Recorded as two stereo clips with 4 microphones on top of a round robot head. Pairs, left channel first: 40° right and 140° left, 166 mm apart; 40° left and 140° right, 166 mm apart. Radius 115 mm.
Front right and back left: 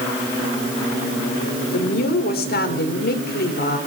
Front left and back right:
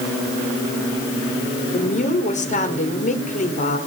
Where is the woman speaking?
10° right, 4 m.